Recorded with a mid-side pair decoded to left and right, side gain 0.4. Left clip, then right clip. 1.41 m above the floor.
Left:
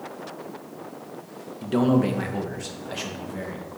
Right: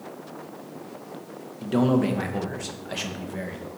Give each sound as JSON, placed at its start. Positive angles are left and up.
{"t": 1.6, "sound": "a man speaking", "azimuth_deg": 0, "distance_m": 1.7}